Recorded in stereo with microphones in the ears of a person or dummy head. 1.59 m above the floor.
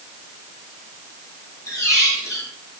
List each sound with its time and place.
1.7 s a squeak: 15° left (ahead or behind), 2.5 m